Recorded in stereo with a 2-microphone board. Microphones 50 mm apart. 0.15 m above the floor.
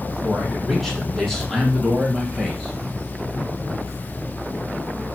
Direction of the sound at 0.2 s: 5° left (ahead or behind).